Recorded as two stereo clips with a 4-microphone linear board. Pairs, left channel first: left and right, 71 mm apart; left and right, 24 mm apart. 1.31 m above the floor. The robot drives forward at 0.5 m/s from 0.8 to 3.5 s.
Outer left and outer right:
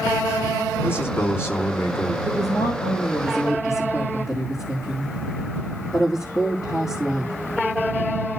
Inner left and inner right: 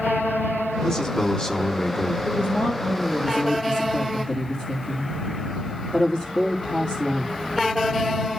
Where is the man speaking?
35° left (ahead or behind), 3 m; by 2.1 s 40° left (ahead or behind), 2.5 m.